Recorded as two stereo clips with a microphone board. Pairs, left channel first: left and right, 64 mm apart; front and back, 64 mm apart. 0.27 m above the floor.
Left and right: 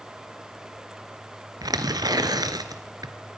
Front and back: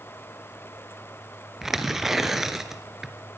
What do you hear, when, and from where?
1.6 s tearing paper: 95° right, 1.6 m